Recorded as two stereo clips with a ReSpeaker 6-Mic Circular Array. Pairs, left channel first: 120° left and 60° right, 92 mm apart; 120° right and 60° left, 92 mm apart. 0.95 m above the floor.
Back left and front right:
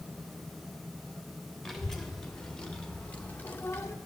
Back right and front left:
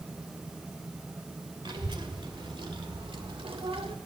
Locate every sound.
1.6 s a child speaking: 30° left, 2.5 m; by 4.0 s 60° left, 1.2 m